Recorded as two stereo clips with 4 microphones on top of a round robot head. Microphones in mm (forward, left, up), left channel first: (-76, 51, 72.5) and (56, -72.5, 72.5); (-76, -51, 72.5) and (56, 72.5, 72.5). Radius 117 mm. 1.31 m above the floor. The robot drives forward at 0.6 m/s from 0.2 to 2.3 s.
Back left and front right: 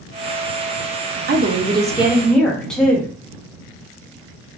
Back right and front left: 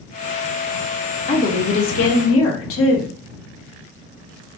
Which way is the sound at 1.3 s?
80° right.